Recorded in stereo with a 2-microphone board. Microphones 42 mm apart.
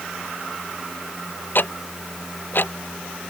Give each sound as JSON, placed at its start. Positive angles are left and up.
{"t": 1.6, "sound": "ticking", "side_deg": 50}